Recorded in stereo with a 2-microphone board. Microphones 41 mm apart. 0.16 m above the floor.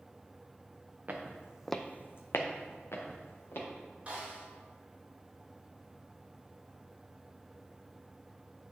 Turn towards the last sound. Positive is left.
turn(degrees=-35)  # may be behind; listen again after turning